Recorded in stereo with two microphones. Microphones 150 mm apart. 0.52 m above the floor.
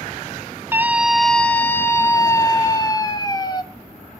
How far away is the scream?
About 0.6 m.